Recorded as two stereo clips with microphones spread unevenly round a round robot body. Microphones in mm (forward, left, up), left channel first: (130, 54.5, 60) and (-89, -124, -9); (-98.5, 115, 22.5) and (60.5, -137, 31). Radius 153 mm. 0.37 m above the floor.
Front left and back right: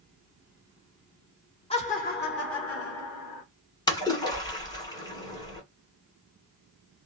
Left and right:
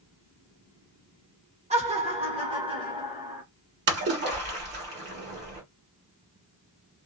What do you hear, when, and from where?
1.7 s laughter: 35° right, 1.0 m; by 3.4 s 15° left, 1.4 m
3.9 s a splash: 45° right, 1.6 m